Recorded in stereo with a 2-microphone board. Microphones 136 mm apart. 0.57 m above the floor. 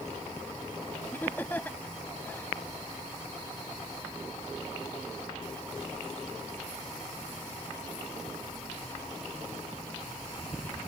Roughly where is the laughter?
Centre.